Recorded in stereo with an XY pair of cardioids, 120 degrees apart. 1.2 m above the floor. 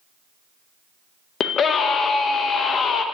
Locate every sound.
1.4 s a scream: 45° left, 0.7 m